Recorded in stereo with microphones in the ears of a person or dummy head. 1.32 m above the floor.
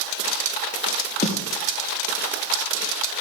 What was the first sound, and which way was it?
A snare drum, 35° left (ahead or behind).